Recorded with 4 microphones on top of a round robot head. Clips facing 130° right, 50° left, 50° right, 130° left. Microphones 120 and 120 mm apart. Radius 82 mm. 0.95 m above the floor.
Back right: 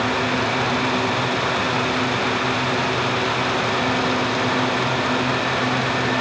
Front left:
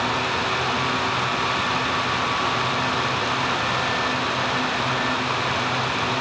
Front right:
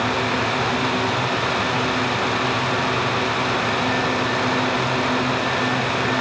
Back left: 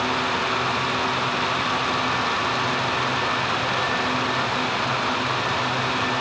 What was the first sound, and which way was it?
Only background noise.